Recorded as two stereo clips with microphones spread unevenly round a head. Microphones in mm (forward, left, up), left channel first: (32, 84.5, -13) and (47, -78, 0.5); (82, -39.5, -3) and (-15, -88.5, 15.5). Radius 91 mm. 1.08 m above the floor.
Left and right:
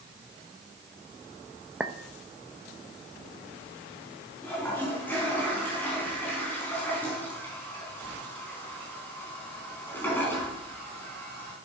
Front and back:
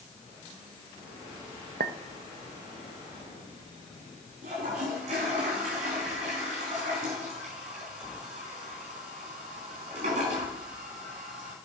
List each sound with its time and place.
1.8 s a clink: 170° right, 0.7 m
4.4 s a toilet flushing: 175° left, 4 m